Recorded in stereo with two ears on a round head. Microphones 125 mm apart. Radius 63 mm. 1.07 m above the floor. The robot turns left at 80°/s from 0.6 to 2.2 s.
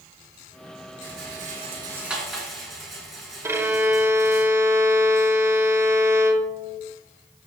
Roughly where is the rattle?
Right.